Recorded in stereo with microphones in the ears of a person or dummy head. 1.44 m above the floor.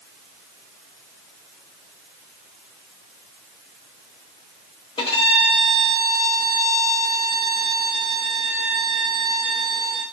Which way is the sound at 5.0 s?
30° left (ahead or behind).